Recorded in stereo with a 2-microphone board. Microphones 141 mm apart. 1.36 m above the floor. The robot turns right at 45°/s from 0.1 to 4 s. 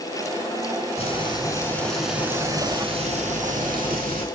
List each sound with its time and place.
1.0 s frying: 135° left, 8 m; by 4.2 s 90° right, 8 m